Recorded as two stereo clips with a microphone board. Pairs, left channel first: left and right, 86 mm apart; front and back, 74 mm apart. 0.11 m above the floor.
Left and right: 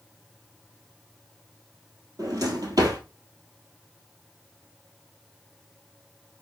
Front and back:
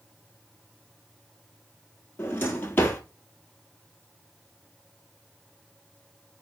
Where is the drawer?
55° right, 1.2 m.